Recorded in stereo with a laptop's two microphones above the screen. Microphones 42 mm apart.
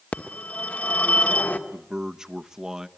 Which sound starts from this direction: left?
A phone ringing, at 0.1 s.